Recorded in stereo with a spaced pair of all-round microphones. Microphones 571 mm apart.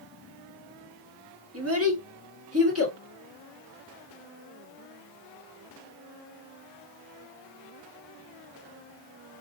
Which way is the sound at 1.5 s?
25° right (ahead or behind).